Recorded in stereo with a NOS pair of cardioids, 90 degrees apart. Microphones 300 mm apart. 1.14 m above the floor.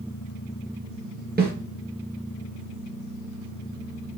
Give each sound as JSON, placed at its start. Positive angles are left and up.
{"t": 1.4, "sound": "a snare drum", "azimuth_deg": -30, "distance_m": 4.5}